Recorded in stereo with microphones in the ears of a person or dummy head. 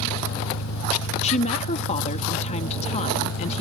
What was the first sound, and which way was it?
An engine running, 70° left (ahead or behind).